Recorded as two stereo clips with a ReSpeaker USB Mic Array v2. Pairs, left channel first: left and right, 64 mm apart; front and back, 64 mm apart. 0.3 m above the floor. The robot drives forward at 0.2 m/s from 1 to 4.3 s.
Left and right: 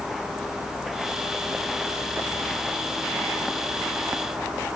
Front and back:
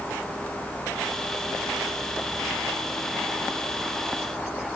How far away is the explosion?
No explosion in this recording.